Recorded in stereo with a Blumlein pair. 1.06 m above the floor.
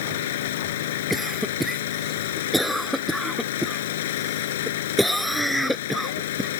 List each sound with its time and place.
0.0 s an engine running: 55° left
1.1 s a cough: straight ahead